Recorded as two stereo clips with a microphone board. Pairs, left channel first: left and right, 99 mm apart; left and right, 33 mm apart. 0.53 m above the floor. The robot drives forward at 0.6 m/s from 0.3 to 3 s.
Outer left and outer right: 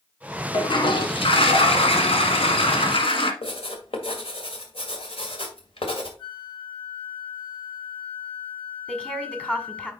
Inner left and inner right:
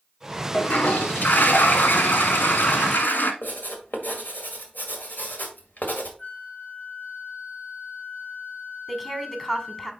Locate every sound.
0.5 s a toilet flushing: 50° left (ahead or behind), 1.5 m; by 3.3 s 65° left (ahead or behind), 1.3 m
3.4 s writing: 70° left (ahead or behind), 2.0 m
6.2 s a flute: 55° left (ahead or behind), 1.6 m
8.9 s a woman speaking: 10° left (ahead or behind), 1.8 m